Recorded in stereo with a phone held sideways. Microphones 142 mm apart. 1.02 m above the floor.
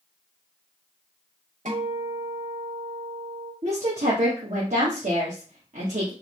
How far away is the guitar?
About 1.6 m.